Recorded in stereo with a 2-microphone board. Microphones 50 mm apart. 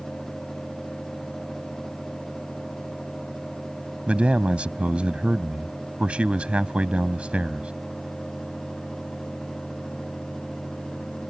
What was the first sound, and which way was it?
A man speaking, 25° right (ahead or behind).